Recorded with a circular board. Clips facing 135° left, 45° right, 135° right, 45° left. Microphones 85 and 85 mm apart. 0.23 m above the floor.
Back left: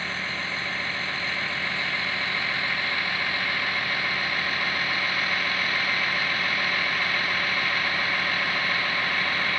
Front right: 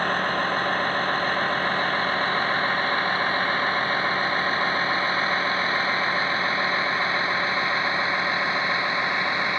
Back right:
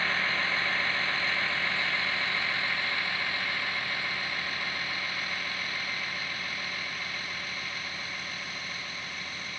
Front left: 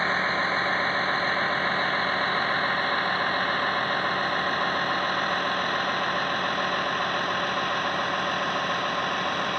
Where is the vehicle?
10° right; by 9.6 s 20° left.